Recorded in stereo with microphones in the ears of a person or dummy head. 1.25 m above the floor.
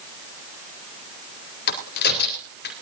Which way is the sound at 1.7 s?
60° left (ahead or behind).